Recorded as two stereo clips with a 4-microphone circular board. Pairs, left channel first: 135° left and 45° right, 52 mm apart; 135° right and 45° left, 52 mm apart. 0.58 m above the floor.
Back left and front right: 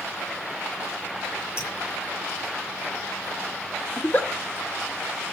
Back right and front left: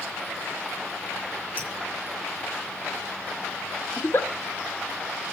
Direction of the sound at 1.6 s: 100° left.